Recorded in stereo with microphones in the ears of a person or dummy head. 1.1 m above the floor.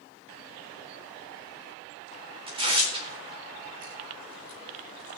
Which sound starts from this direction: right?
Tearing paper, at 2.5 s.